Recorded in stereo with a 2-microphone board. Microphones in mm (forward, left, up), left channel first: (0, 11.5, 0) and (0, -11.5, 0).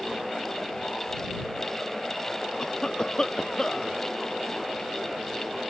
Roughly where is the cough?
Left.